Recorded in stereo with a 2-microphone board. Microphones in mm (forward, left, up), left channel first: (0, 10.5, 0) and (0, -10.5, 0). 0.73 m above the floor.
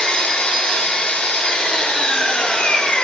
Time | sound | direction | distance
0.0 | an engine running | 65° left (ahead or behind) | 1.5 m